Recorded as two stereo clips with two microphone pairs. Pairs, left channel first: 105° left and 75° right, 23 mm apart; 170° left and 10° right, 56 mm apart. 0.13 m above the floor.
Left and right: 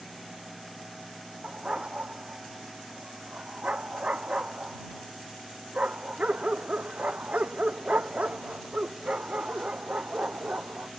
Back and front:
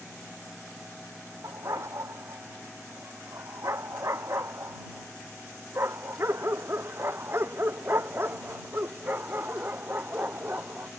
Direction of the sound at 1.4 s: 40° right.